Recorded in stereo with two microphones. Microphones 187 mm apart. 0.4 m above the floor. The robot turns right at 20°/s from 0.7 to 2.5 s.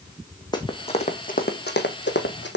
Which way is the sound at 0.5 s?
20° left (ahead or behind).